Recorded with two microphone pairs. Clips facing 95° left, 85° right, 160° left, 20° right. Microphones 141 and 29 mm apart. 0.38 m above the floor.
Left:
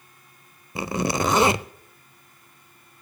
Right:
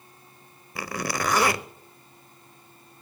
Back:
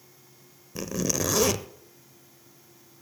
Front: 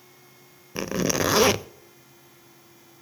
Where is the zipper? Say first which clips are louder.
Left 5 dB, front 4 dB; 30° left, 0.5 m.